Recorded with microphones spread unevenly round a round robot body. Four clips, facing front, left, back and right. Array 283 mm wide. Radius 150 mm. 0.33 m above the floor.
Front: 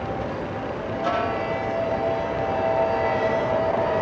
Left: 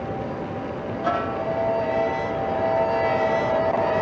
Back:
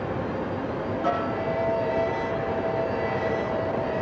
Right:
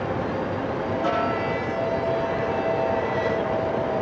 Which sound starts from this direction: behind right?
A snare drum, at 1.0 s.